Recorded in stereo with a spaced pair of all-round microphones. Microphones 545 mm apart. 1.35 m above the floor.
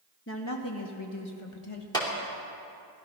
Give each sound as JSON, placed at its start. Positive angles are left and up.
{"t": 0.3, "sound": "a woman speaking", "side_deg": 20, "distance_m": 1.0}
{"t": 1.9, "sound": "a clap", "side_deg": 10, "distance_m": 2.5}